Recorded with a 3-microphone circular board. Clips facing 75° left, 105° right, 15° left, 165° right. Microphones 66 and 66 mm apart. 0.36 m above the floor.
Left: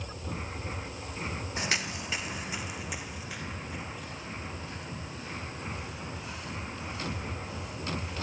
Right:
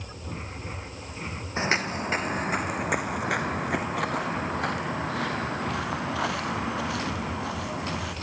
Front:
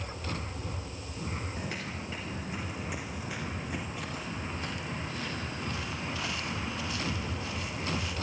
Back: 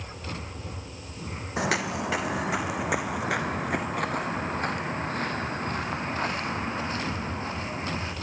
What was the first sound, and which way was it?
Footsteps, 165° right.